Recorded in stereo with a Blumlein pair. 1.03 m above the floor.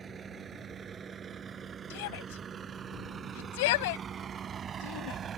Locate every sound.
0.0 s a vehicle: 20° right; by 5.4 s 25° right
1.9 s a shout: 50° left